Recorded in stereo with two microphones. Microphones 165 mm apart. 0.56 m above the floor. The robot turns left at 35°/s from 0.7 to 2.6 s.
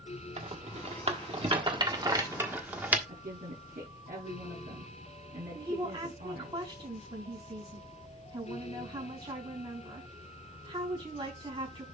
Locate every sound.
0.4 s a rattle: 40° right (ahead or behind), 1.4 m; by 3.0 s 10° right (ahead or behind), 1.4 m
3.1 s a woman speaking: 60° right (ahead or behind), 6 m
5.5 s a woman speaking: 30° right (ahead or behind), 4.5 m